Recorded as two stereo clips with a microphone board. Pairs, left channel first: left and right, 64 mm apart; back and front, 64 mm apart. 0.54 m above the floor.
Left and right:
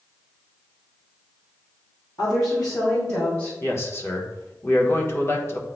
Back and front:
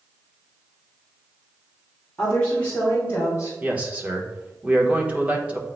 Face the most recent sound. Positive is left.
turn(degrees=60)